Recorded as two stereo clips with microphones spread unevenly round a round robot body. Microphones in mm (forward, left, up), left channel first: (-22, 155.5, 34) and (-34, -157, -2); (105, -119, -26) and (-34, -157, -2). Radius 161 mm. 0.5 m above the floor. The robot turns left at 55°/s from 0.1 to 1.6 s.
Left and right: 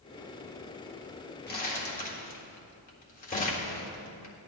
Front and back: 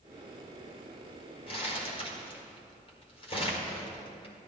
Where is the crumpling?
35° left, 1.8 m; by 4.3 s 25° left, 1.8 m.